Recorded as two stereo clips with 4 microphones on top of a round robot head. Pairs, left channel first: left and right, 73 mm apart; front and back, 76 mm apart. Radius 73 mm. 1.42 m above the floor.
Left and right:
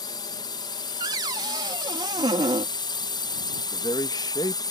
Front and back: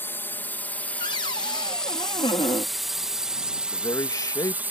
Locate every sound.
0.0 s a drone: 60° left; by 4.7 s 110° left
1.0 s a cupboard door: 45° right
3.7 s a man speaking: 45° left